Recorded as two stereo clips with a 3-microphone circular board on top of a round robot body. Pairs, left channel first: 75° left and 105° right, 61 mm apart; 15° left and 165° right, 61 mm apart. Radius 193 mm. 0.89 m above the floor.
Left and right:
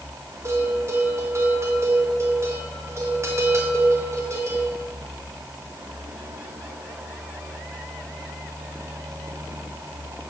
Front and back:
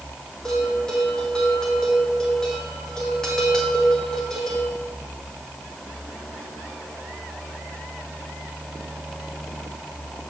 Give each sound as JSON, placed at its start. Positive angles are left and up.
{"t": 0.5, "sound": "a bell", "azimuth_deg": -65, "distance_m": 2.0}